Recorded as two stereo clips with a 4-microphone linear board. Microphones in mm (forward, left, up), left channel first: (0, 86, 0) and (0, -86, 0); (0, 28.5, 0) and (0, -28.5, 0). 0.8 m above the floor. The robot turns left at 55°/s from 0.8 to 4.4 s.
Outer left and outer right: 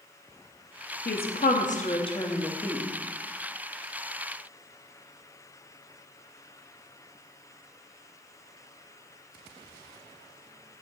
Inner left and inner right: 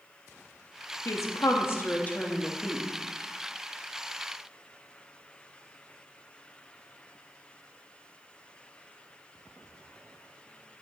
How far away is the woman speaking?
About 1.1 m.